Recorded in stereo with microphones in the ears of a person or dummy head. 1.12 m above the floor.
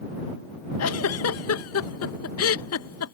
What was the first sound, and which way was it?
A giggle, 65° left (ahead or behind).